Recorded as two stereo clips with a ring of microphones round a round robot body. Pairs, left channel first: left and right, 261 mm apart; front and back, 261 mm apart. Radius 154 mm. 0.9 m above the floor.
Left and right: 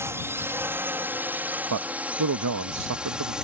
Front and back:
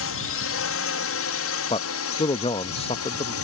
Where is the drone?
10° right; by 3.4 s 5° right.